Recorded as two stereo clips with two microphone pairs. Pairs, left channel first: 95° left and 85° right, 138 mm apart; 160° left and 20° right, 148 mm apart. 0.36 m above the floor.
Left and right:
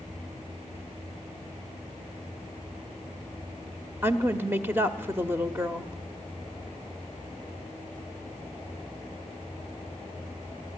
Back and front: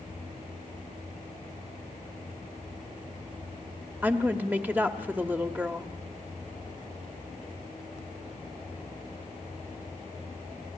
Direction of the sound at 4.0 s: 60° right.